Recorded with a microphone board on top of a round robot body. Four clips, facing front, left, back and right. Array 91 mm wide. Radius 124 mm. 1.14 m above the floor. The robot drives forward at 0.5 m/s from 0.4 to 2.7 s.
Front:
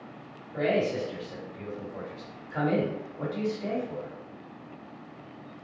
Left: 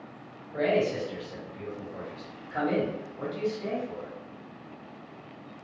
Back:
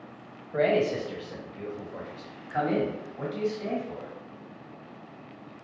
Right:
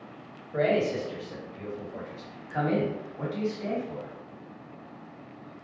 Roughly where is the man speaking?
Behind right.